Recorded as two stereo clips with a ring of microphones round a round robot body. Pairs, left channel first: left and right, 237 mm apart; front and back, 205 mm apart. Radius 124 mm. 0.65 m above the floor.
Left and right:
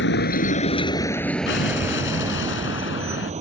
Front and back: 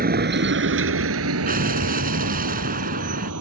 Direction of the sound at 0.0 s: 135° left.